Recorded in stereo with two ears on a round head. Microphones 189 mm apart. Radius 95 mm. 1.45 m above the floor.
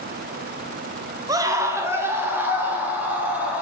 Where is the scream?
15° right (ahead or behind), 0.8 m; by 3.6 s 10° right (ahead or behind), 2.5 m.